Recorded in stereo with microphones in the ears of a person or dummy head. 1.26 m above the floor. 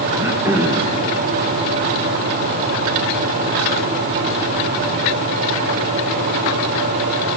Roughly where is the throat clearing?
Centre.